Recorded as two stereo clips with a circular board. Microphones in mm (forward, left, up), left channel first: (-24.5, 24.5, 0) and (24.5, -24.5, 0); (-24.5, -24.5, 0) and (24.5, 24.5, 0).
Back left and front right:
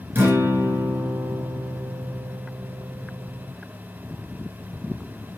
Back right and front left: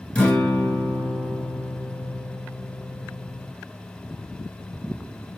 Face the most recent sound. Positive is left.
turn(degrees=-70)